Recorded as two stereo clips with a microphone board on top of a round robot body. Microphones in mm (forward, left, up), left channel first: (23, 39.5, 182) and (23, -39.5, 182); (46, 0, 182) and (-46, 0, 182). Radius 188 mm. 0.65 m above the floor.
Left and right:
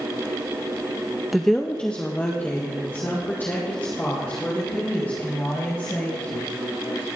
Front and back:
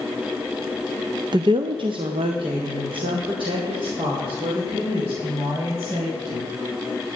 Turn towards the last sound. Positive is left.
turn(degrees=155)